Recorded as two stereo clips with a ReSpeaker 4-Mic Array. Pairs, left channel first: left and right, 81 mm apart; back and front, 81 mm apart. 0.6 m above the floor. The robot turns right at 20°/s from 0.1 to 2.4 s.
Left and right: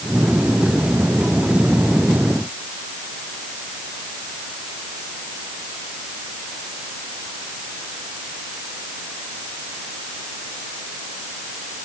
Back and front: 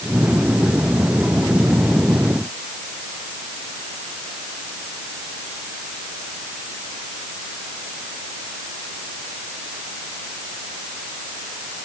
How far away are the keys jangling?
No keys jangling in this recording.